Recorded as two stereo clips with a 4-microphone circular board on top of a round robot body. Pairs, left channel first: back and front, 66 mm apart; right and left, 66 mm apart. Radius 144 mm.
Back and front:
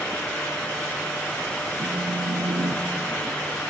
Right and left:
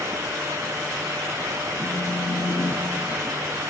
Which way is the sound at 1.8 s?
30° right.